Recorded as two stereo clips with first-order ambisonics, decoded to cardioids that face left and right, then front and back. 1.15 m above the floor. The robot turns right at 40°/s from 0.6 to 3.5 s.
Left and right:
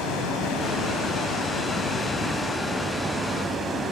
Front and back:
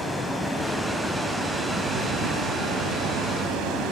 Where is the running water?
85° left, 1.6 m; by 3.9 s 160° right, 1.6 m.